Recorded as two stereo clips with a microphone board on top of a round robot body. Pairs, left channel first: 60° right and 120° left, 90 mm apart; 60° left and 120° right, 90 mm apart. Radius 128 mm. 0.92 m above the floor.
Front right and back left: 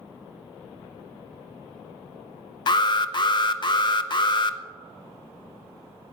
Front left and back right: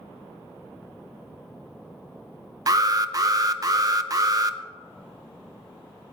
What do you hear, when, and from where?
2.7 s an alarm: 80° right, 0.7 m